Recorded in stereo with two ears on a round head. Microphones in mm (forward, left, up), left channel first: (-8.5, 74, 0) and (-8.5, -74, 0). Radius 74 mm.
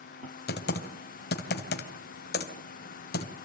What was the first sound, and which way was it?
Typing on a keyboard, 65° left (ahead or behind).